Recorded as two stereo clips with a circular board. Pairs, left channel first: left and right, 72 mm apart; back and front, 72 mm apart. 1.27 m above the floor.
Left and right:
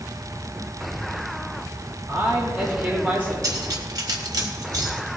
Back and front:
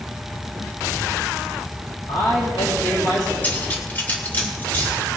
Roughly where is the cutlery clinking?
Behind right.